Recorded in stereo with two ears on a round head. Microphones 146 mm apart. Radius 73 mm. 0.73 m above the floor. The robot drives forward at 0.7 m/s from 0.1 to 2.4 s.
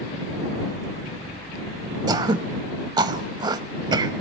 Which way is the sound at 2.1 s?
25° right (ahead or behind).